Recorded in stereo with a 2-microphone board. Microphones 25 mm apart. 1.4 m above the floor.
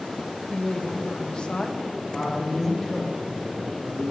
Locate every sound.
0.5 s a woman speaking: 40° left (ahead or behind), 1.0 m
2.1 s a man speaking: 10° left (ahead or behind), 2 m